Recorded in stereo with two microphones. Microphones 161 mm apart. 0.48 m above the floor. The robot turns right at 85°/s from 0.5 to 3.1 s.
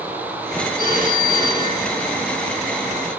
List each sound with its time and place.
0.8 s a phone ringing: 30° right, 3.5 m; by 3.2 s 170° left, 3.5 m